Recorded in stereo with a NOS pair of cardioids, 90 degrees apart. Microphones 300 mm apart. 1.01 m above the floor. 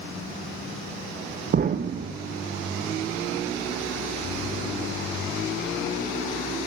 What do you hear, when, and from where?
1.5 s an explosion: 30° right, 0.5 m